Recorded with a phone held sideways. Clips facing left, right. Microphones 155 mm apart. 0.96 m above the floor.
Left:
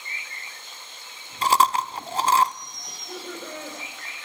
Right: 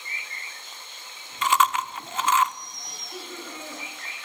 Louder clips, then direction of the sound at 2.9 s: Left 4 dB; 70° left (ahead or behind).